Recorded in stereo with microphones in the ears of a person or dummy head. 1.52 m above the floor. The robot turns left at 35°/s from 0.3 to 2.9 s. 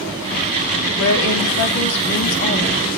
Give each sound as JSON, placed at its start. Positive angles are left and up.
{"t": 1.0, "sound": "a woman speaking", "azimuth_deg": 115, "distance_m": 3.0}